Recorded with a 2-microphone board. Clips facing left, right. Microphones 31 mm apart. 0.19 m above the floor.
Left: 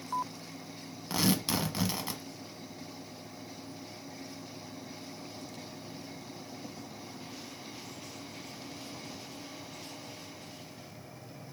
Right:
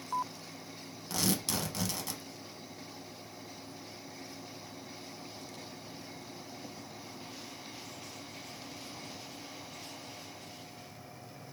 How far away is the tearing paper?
About 0.7 m.